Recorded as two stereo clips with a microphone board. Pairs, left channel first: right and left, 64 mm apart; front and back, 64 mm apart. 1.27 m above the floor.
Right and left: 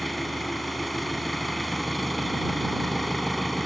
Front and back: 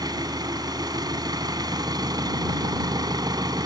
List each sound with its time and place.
0.0 s an engine running: straight behind